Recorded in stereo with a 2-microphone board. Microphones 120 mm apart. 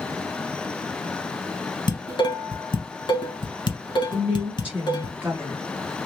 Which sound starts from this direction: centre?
A woman speaking, at 4.1 s.